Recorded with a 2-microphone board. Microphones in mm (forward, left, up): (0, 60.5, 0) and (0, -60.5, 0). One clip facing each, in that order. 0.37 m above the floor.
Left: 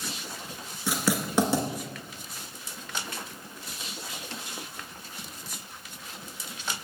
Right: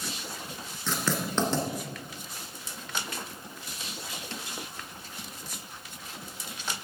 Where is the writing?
10° left (ahead or behind), 1.5 m.